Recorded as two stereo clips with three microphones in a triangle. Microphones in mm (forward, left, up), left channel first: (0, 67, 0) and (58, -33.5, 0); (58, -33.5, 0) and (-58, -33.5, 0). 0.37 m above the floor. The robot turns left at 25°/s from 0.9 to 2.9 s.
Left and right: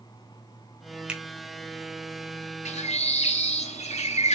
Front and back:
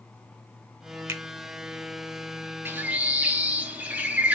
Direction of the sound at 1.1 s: 130° right.